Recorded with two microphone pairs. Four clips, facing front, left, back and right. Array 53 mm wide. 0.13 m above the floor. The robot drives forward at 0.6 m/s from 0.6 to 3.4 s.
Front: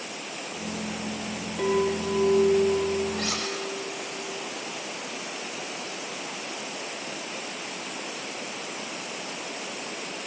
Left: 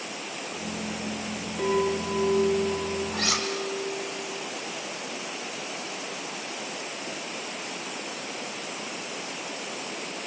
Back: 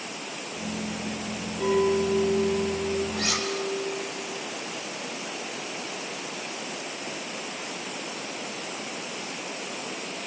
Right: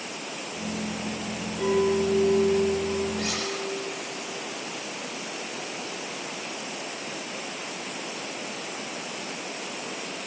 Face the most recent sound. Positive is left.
turn(degrees=80)